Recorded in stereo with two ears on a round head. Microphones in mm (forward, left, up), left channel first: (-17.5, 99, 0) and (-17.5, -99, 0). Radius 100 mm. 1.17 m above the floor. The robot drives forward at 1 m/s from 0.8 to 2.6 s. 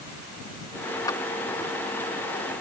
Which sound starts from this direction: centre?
A clap, at 1.1 s.